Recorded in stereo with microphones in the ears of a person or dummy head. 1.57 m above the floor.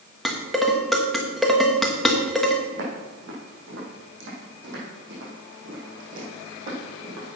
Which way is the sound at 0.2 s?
5° right (ahead or behind).